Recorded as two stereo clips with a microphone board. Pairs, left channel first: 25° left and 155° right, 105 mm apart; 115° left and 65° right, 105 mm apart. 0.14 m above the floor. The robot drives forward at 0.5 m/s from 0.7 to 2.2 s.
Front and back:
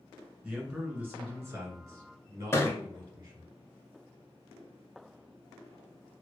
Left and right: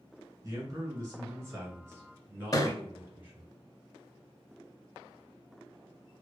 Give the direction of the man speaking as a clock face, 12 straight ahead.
3 o'clock.